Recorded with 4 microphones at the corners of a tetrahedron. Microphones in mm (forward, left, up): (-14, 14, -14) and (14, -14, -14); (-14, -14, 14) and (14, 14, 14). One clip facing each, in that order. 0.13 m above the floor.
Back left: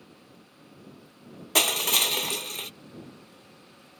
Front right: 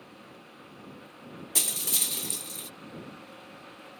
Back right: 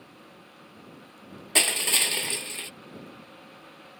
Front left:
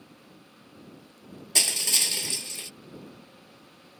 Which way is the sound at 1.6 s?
165° left.